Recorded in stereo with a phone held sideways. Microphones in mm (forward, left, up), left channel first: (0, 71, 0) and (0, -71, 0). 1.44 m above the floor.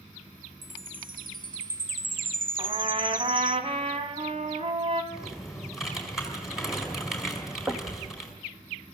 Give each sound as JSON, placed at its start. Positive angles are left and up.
{"t": 0.6, "sound": "a chime", "side_deg": -75, "distance_m": 0.7}
{"t": 2.6, "sound": "a trumpet", "side_deg": -40, "distance_m": 2.0}
{"t": 5.1, "sound": "typing on a keyboard", "side_deg": 0, "distance_m": 4.5}
{"t": 7.7, "sound": "knocking", "side_deg": -10, "distance_m": 1.7}